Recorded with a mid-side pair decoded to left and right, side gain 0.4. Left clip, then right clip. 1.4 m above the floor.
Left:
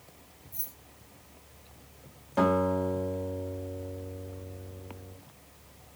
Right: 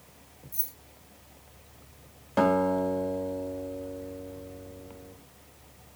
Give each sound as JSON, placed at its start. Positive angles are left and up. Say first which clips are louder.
{"t": 0.5, "sound": "keys jangling", "louder": "right 3 dB", "azimuth_deg": -45, "distance_m": 2.0}
{"t": 2.4, "sound": "a guitar", "louder": "right 2 dB", "azimuth_deg": -35, "distance_m": 2.5}